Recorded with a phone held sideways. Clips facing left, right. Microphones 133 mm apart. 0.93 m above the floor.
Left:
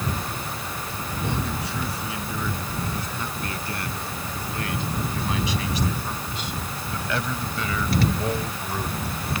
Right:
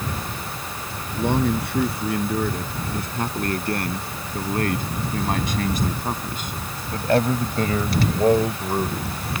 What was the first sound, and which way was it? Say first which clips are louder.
A man speaking: right 9 dB; 55° right (ahead or behind).